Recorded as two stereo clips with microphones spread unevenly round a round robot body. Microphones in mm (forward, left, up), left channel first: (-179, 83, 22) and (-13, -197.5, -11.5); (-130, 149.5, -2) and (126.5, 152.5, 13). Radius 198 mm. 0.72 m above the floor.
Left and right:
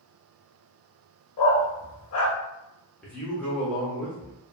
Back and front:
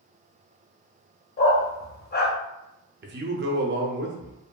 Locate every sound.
1.4 s a dog barking: 135° left, 0.6 m
3.0 s a man speaking: 30° left, 0.6 m